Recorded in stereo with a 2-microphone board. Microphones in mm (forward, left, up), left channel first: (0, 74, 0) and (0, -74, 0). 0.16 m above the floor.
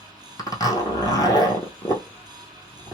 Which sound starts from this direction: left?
A zipper, at 0.4 s.